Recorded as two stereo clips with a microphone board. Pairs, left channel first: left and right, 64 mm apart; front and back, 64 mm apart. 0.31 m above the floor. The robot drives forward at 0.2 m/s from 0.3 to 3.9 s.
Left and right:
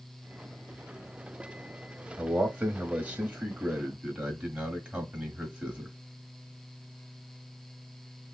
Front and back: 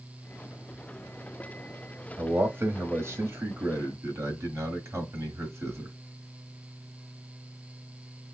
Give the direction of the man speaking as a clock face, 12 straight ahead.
5 o'clock.